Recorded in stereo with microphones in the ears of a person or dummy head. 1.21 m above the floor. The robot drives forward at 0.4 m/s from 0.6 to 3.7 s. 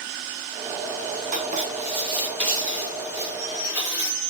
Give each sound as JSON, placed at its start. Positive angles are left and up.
{"t": 1.3, "sound": "writing", "side_deg": -40, "distance_m": 0.7}